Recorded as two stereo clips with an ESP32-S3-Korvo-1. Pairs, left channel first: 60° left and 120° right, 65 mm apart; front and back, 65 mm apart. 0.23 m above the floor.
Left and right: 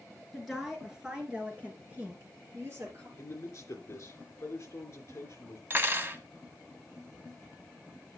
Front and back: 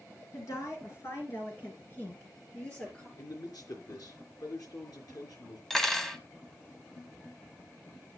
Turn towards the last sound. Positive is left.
turn(degrees=-85)